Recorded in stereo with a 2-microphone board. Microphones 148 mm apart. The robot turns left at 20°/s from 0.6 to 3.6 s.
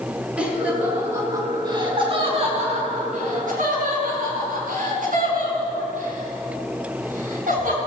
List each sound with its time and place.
0.4 s laughter: 10° right (ahead or behind), 4.5 m; by 7.8 s 70° right (ahead or behind), 4.5 m